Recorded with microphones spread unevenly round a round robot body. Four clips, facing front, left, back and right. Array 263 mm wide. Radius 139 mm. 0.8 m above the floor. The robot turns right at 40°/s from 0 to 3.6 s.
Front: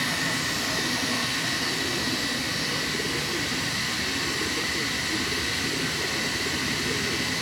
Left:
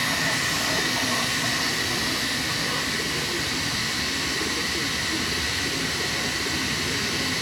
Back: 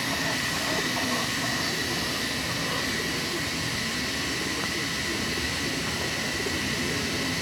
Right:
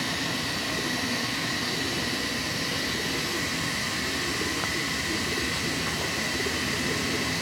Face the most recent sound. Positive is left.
turn(degrees=-140)